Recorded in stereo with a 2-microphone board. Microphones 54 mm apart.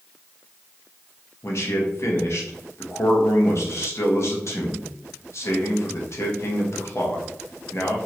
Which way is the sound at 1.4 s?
55° left (ahead or behind).